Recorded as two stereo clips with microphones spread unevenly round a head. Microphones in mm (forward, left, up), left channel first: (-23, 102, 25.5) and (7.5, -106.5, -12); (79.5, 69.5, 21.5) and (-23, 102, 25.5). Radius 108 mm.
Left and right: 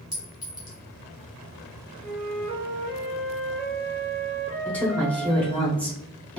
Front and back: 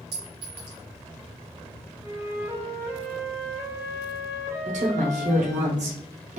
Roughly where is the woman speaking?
Behind.